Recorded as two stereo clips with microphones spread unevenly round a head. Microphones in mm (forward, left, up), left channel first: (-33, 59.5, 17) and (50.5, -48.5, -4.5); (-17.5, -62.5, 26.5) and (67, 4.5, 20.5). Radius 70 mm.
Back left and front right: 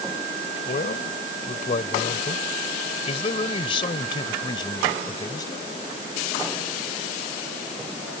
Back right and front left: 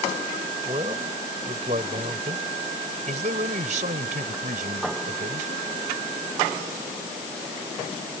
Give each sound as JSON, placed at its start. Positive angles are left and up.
{"t": 0.7, "sound": "a man speaking", "azimuth_deg": 90}